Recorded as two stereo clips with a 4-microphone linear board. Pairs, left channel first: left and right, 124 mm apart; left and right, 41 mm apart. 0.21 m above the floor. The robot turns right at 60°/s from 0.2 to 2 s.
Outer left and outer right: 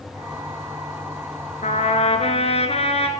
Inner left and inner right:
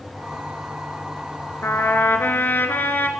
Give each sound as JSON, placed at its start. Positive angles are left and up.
{"t": 1.6, "sound": "a trumpet", "side_deg": 70, "distance_m": 2.0}